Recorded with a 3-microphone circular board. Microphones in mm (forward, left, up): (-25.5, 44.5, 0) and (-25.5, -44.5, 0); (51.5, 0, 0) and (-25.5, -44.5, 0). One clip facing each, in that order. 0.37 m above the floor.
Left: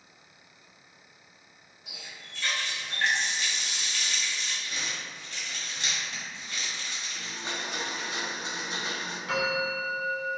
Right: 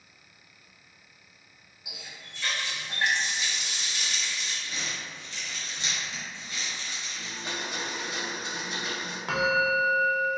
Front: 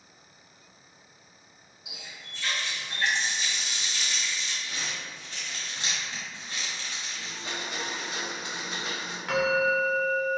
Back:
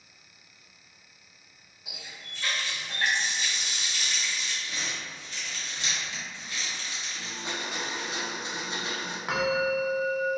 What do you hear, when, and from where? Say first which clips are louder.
1.9 s a running tap: right 1 dB, even; 165° right, 0.9 m
4.6 s crumpling: even, even; 65° left, 1.4 m
7.2 s a blender: right 1 dB, back 2 dB; 150° left, 0.8 m
9.3 s a bell: right 5 dB, front 2 dB; 75° right, 0.5 m